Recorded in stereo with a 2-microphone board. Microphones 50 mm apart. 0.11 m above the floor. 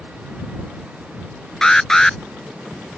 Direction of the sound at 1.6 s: 10° left (ahead or behind).